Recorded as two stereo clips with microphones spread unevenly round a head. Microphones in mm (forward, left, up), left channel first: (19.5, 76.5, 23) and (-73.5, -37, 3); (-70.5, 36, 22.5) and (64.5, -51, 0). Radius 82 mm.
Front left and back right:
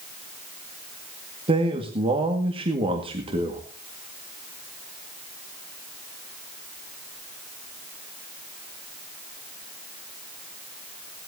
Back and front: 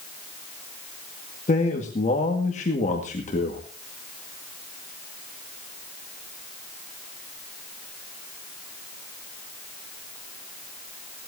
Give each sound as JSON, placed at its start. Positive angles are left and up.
{"t": 1.5, "sound": "a man speaking", "azimuth_deg": -170, "distance_m": 2.0}